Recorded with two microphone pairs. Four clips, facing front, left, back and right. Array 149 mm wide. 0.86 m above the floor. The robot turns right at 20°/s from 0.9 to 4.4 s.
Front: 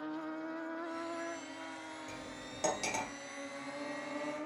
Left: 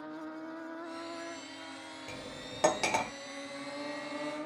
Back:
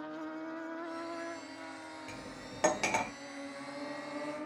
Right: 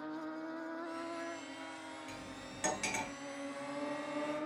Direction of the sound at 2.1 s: 105° left.